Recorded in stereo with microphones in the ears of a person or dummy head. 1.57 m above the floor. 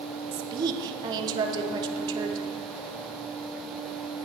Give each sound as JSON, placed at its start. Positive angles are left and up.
{"t": 0.3, "sound": "a woman speaking", "side_deg": -20, "distance_m": 0.9}